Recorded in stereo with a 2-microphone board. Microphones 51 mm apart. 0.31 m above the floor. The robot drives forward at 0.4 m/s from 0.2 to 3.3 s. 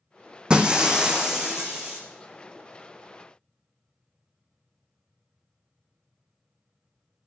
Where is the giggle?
No giggle in this recording.